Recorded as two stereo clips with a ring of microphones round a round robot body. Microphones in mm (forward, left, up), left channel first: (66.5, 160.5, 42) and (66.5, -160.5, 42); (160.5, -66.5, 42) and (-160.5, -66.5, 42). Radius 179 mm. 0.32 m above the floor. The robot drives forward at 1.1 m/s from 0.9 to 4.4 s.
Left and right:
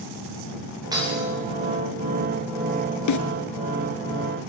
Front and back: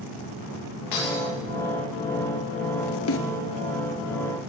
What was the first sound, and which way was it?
Breaking glass, 10° right.